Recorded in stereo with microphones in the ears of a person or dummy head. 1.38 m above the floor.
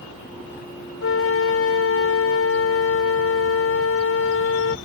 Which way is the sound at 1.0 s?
70° left (ahead or behind).